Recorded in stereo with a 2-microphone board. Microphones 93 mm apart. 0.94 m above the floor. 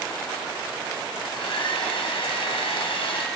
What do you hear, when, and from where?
1.2 s a hair dryer: 75° left (ahead or behind), 2.5 m